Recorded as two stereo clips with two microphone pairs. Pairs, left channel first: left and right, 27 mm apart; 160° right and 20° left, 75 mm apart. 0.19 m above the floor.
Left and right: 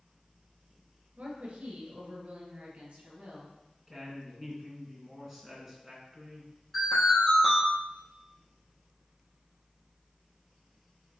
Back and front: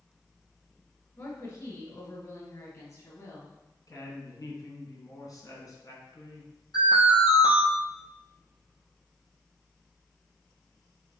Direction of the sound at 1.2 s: 125° right.